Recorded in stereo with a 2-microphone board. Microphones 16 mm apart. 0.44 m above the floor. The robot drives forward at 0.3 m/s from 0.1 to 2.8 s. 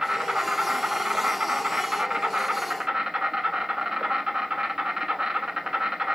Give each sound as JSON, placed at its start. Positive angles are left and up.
{"t": 0.0, "sound": "an insect", "side_deg": -55, "distance_m": 0.7}